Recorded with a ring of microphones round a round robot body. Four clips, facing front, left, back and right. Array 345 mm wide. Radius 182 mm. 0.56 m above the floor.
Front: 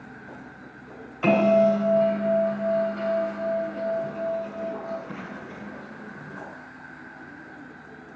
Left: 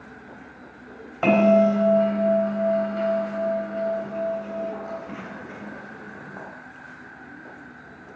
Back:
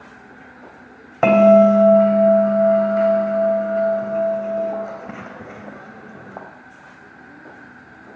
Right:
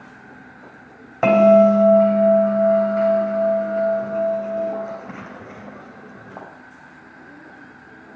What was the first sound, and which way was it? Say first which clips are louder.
A bell: right 5 dB, back 8 dB; 160° right.